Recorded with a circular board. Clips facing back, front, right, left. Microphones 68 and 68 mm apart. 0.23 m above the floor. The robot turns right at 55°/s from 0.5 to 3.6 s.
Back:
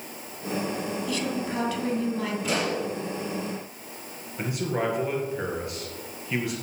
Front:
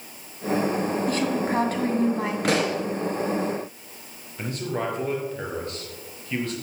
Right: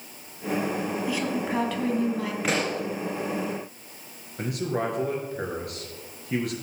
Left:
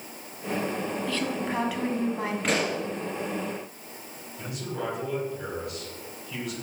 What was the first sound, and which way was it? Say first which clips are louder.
A woman speaking: front 5 dB, right 2 dB; 25° right.